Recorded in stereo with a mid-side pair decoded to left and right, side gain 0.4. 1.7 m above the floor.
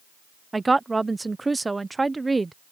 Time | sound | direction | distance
0.5 | a woman speaking | 20° right | ?